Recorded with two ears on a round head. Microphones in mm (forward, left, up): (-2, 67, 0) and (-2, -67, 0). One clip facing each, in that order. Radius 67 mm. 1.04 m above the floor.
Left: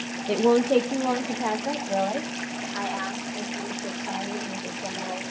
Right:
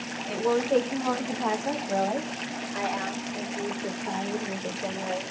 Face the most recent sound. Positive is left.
turn(degrees=-25)  # may be behind; listen again after turning